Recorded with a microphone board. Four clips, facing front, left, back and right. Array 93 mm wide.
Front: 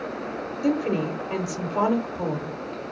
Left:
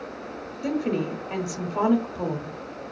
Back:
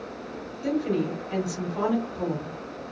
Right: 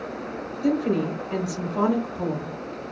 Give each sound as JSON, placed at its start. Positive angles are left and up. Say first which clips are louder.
{"t": 0.6, "sound": "a woman speaking", "louder": "right 3 dB, front 2 dB", "azimuth_deg": 35, "distance_m": 1.0}